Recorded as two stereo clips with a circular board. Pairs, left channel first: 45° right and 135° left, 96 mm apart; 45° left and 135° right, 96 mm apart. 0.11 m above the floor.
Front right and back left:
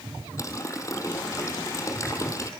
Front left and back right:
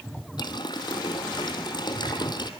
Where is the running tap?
10° left, 3 m.